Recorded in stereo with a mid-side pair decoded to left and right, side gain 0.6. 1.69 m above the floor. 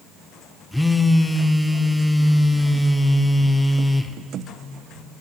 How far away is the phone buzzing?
About 0.7 m.